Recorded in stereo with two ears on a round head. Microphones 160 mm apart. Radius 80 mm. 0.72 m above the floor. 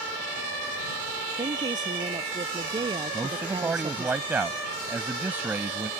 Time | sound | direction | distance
1.4 | a woman speaking | 20° right (ahead or behind) | ?
3.1 | a man speaking | 10° right (ahead or behind) | ?